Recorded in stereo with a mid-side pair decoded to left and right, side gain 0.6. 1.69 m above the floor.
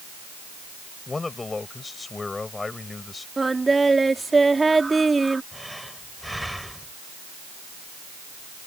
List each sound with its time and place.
1.1 s a man speaking: 20° left
3.4 s singing: 15° right
5.5 s breathing: straight ahead